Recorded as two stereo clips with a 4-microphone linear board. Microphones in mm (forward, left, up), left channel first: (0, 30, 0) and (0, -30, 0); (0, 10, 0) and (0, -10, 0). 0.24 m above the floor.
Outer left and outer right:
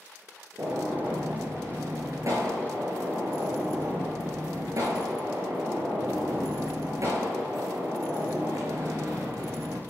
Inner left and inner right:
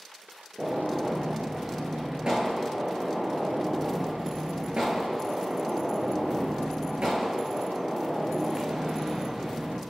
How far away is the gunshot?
About 5.5 m.